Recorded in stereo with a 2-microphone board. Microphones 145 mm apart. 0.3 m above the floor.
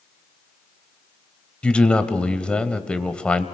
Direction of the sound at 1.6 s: 10° left (ahead or behind).